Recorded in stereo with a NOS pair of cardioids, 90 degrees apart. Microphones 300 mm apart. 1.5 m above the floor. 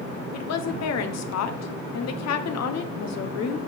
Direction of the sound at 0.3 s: 60° left.